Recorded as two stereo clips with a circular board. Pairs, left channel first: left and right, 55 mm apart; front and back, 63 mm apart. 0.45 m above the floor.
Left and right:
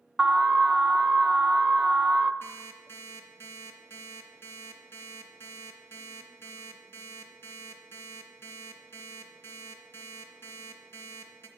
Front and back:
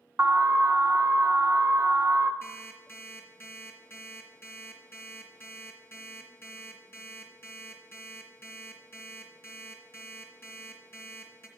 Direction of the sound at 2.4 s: 55° left.